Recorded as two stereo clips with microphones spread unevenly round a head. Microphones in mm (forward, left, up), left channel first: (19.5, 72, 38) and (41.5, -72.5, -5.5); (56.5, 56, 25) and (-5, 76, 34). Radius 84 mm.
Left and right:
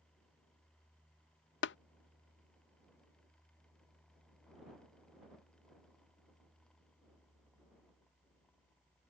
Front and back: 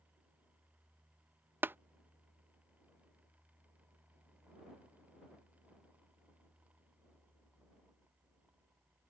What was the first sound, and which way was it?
Tapping, 100° left.